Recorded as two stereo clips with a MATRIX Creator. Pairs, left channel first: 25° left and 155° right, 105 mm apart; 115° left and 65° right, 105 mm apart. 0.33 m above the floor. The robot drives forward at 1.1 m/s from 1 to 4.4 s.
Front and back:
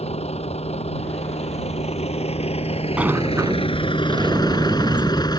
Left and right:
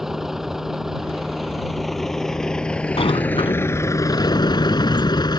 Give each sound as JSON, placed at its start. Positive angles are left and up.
{"t": 0.0, "sound": "a vehicle", "azimuth_deg": 20}
{"t": 3.0, "sound": "a sliding door", "azimuth_deg": 125}